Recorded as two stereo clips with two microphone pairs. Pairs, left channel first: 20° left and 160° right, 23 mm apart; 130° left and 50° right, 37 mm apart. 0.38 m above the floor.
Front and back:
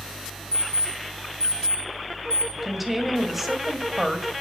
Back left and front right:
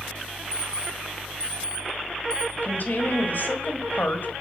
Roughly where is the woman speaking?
Behind left.